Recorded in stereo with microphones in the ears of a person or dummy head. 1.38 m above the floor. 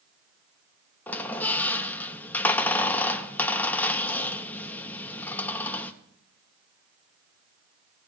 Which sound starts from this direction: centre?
A squeak, at 1.1 s.